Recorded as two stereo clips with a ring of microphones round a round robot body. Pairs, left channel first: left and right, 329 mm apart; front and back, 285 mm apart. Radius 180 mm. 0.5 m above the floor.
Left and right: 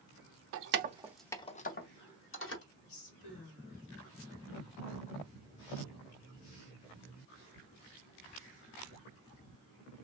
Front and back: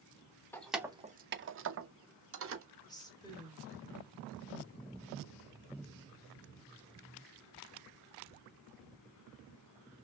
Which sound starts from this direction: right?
Keys jangling, at 0.5 s.